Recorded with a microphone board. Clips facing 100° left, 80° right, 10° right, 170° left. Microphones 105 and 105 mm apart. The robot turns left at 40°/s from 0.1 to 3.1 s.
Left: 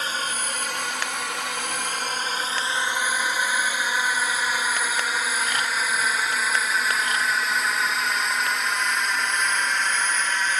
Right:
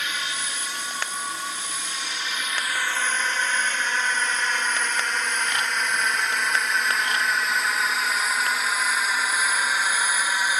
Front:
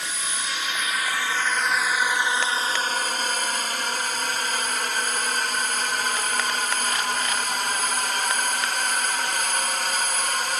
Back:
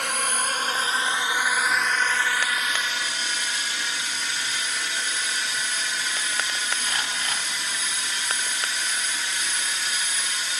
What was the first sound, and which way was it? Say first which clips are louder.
A drone: left 3 dB, back 5 dB; 150° left.